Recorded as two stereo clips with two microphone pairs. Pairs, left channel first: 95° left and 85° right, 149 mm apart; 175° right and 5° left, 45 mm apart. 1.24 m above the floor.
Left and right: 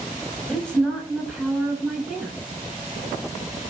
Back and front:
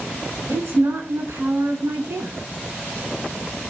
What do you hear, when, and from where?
0.5 s a woman speaking: 10° left, 9 m